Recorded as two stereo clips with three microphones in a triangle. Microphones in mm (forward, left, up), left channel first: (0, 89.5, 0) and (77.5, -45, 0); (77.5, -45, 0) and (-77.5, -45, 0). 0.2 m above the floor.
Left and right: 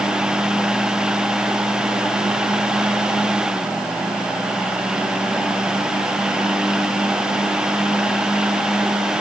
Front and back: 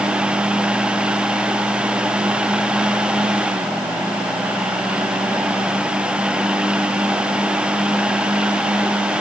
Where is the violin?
No violin in this recording.